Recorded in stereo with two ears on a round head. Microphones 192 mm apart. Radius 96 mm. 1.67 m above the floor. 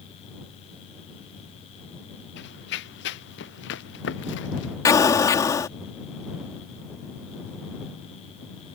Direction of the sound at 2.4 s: 55° left (ahead or behind).